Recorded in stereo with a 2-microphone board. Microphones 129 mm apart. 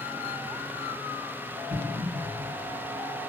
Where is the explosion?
60° right (ahead or behind), 2.5 m.